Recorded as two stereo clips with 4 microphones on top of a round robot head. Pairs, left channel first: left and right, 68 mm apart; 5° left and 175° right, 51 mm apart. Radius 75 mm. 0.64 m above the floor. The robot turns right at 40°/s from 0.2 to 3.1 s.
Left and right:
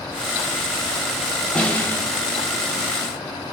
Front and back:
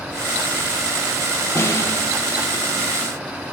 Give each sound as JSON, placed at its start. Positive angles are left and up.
{"t": 1.6, "sound": "a snare drum", "azimuth_deg": 15, "distance_m": 5.0}